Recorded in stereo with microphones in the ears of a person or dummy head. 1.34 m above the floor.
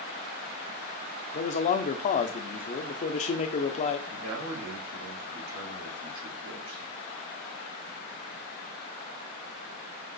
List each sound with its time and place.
1.3 s a man speaking: 40° left (ahead or behind), 0.5 m
4.1 s a man speaking: 80° right, 2.5 m